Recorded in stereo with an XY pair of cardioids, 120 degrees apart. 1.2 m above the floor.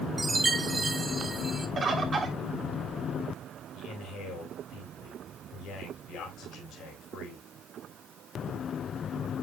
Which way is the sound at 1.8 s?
30° right.